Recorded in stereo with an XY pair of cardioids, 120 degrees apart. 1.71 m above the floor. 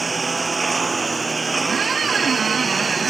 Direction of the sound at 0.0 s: 20° right.